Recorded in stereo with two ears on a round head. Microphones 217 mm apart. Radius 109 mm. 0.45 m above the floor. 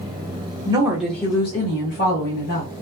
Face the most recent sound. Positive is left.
turn(degrees=55)  # may be behind; listen again after turning